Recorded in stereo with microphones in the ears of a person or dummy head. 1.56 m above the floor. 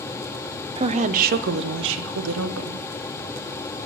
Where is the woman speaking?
25° right (ahead or behind), 0.9 m; by 2.9 s 80° right, 1.5 m.